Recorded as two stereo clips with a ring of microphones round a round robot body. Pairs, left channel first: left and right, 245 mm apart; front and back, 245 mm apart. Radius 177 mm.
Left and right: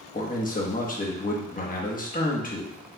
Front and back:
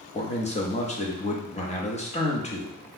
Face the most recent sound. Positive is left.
turn(degrees=50)